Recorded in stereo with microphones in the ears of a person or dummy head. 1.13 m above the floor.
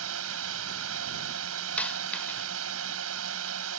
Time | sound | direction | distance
0.0 | a drone | 85° right | ?
1.8 | a dropped coin | 15° left (ahead or behind) | ?